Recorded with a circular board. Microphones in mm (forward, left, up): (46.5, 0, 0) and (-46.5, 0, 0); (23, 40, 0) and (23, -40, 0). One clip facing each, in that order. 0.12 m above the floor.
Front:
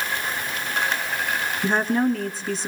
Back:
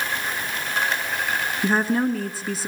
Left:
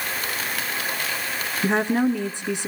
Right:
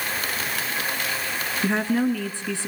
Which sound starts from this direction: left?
A woman speaking, at 1.6 s.